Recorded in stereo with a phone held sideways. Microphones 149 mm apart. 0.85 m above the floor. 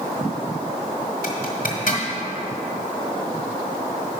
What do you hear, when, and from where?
1.2 s a zipper: 65° left (ahead or behind), 1.3 m